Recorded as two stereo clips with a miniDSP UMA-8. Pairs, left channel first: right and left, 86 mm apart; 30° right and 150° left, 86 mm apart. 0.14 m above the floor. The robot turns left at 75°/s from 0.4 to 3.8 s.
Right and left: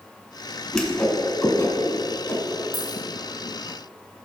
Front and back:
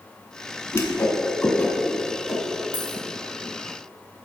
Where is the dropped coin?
Straight ahead, 2.5 m; by 3.0 s 20° right, 2.5 m.